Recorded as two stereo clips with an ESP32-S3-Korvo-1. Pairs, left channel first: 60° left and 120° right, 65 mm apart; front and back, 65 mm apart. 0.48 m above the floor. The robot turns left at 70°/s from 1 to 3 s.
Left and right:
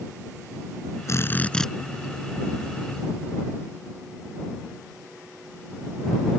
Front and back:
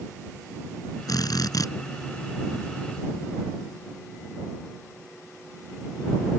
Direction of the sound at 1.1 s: 20° left.